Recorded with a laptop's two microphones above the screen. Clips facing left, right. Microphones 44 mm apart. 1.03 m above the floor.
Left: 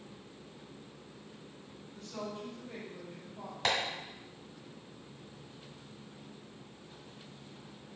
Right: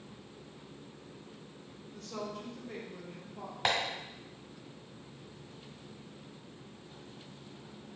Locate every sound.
1.9 s a woman speaking: 65° right (ahead or behind), 1.3 m
3.6 s tapping: 20° right (ahead or behind), 1.5 m